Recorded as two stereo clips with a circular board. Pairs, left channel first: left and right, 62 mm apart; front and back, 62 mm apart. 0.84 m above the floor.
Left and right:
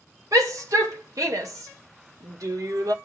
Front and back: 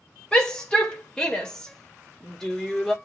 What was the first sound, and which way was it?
A shout, 75° right.